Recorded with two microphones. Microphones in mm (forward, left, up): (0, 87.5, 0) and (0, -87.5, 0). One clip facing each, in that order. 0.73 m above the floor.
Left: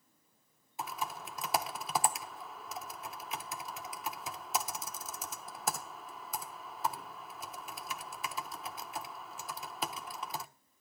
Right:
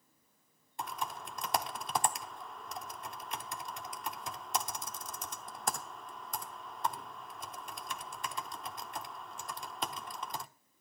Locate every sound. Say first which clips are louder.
0.8 s typing on a keyboard: even; 5° left (ahead or behind), 0.9 m